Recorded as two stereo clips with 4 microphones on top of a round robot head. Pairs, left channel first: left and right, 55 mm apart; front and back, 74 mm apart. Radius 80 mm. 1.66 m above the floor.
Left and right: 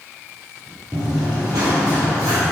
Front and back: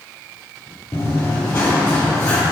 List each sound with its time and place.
0.9 s running footsteps: 65° right, 2.5 m